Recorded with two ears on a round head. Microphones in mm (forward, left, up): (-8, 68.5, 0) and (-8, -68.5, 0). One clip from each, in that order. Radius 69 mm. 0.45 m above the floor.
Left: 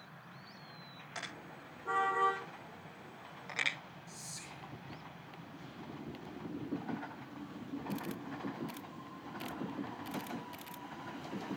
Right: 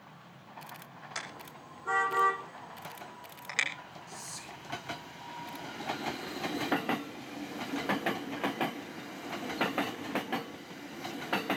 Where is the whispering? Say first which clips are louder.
Right 4 dB; 15° right (ahead or behind), 7.5 m.